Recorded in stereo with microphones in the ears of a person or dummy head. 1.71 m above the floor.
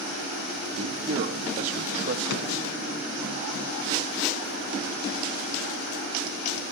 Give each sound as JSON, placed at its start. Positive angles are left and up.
{"t": 0.8, "sound": "a man speaking", "side_deg": -35, "distance_m": 1.2}
{"t": 2.3, "sound": "a drawer", "side_deg": 80, "distance_m": 8.5}